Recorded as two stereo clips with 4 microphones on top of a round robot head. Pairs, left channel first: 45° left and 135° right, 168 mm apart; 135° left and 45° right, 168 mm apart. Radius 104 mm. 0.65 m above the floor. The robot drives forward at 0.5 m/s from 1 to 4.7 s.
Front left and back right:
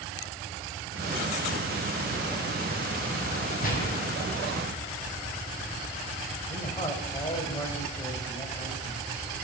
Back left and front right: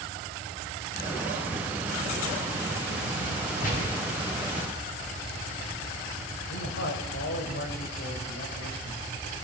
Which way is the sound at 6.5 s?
115° left.